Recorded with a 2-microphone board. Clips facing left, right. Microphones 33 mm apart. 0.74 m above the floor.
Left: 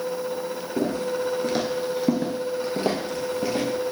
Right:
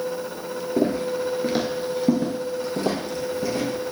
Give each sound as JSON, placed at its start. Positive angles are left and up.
{"t": 0.8, "sound": "footsteps", "side_deg": -35, "distance_m": 0.8}